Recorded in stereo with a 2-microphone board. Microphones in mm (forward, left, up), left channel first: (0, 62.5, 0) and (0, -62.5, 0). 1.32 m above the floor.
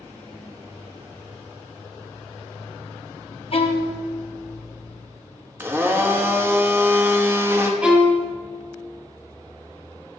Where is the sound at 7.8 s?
10° right (ahead or behind), 1.4 m.